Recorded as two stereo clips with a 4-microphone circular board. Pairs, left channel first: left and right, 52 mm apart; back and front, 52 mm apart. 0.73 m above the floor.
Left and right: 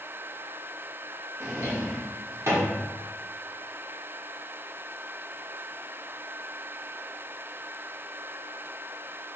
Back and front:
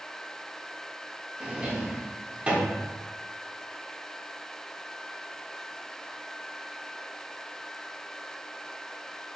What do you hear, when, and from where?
1.4 s a drawer: 70° right, 1.0 m